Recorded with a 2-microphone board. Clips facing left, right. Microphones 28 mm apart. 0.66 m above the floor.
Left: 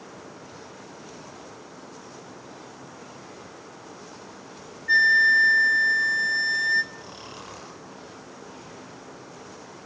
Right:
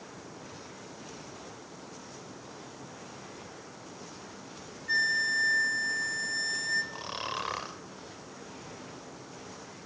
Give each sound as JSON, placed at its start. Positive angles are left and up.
{"t": 4.9, "sound": "a flute", "side_deg": 35, "distance_m": 1.2}
{"t": 6.9, "sound": "snoring", "side_deg": -40, "distance_m": 2.5}